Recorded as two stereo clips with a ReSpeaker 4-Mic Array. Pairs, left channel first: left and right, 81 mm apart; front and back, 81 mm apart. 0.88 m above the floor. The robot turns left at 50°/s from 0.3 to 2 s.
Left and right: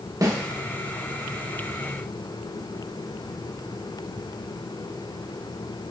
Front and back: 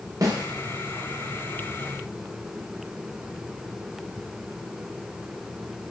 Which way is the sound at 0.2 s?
135° right.